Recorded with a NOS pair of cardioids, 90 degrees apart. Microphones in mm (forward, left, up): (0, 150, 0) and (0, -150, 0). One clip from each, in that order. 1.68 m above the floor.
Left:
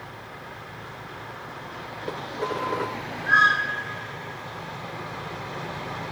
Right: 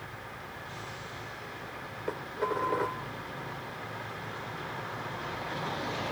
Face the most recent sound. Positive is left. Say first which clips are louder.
# left 3 dB
turn(degrees=10)